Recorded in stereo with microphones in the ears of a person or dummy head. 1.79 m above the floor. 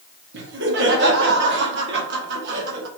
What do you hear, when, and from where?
0.3 s laughter: 65° right (ahead or behind), 1.2 m